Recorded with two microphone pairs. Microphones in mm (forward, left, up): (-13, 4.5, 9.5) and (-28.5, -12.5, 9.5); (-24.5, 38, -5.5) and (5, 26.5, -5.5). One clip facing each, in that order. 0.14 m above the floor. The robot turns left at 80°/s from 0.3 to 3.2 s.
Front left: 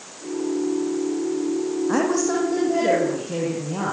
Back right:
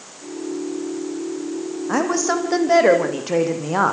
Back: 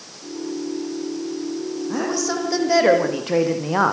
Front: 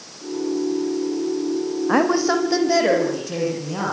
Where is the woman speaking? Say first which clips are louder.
Back right 3 dB, front 7 dB; 55° right, 6.5 m; by 3.9 s 160° right, 6.5 m.